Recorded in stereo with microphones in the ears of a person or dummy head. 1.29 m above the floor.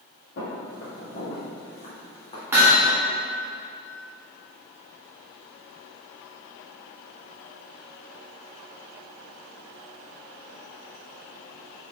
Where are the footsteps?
40° left (ahead or behind), 1.9 m; by 2.4 s 25° left (ahead or behind), 2.5 m.